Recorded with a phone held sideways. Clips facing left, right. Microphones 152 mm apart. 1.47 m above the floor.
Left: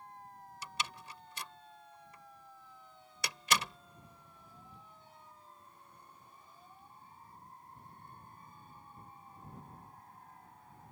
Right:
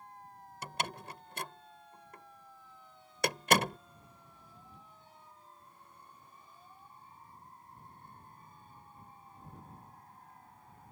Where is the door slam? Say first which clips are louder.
Right 5 dB; 60° right (ahead or behind).